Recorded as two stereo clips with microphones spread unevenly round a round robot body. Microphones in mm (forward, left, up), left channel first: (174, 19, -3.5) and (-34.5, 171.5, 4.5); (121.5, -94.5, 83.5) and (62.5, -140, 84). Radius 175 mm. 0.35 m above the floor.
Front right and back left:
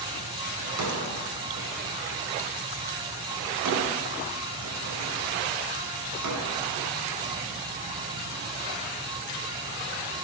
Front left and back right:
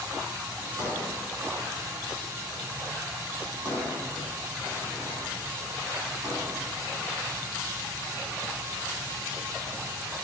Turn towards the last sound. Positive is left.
turn(degrees=155)